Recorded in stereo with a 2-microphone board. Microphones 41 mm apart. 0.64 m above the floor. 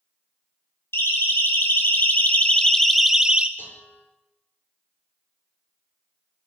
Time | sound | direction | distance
0.9 | a siren | 75° left (ahead or behind) | 3.5 m
3.6 | dishes clattering | 60° left (ahead or behind) | 6.5 m